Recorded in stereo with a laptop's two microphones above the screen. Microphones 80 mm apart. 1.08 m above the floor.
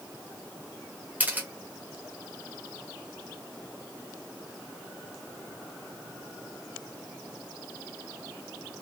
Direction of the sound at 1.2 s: 20° right (ahead or behind).